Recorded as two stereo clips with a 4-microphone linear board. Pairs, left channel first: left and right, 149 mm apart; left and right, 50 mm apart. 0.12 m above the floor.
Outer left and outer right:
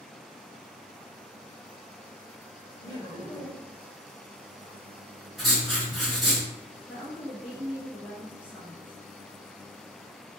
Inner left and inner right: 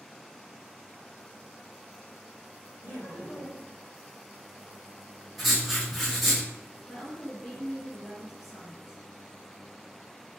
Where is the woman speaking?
10° right (ahead or behind), 1.1 m.